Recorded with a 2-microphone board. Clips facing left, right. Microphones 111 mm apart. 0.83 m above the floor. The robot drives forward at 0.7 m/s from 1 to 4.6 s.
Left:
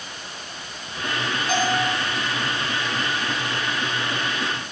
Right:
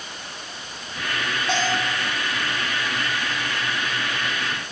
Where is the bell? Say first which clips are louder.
Left 2 dB; 30° right (ahead or behind), 2.5 m; by 1.9 s 25° right (ahead or behind), 2.5 m.